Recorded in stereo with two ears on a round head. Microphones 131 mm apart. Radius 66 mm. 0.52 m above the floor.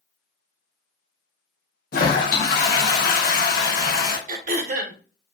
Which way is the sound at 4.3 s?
60° right (ahead or behind).